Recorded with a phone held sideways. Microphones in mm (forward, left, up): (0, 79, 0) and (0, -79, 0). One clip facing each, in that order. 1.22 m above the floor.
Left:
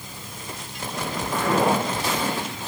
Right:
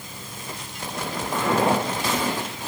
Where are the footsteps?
25° right (ahead or behind), 3 m; by 2.7 s 15° right (ahead or behind), 3.5 m.